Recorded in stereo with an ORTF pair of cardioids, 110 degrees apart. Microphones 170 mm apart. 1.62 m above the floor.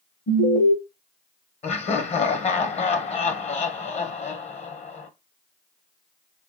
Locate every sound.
0.3 s an alarm: 55° left, 1.7 m
1.6 s laughter: 40° left, 1.1 m